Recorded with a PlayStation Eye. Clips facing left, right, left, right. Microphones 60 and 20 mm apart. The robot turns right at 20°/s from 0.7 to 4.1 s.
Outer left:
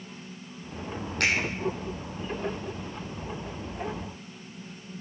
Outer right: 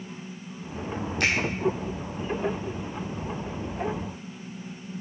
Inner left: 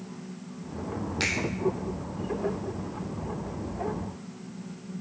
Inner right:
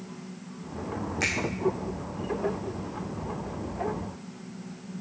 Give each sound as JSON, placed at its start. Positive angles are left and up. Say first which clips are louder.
{"t": 1.2, "sound": "a finger snap", "louder": "even, even", "side_deg": 55, "distance_m": 5.0}